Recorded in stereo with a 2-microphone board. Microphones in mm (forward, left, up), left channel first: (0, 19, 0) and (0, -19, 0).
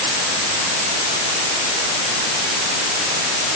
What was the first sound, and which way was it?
Only background noise.